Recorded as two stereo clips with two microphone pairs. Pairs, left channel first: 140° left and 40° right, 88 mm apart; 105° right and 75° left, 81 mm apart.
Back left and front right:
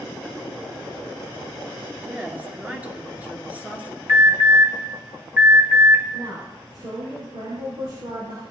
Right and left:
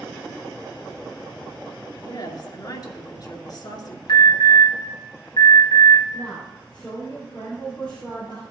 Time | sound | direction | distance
1.9 | a woman speaking | 105° right | 2 m
4.1 | an alarm | 100° right | 3.5 m
6.1 | a woman speaking | 30° right | 4.5 m